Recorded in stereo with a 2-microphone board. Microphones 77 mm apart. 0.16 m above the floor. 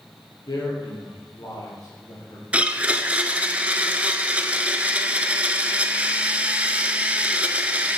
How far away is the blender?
About 0.5 m.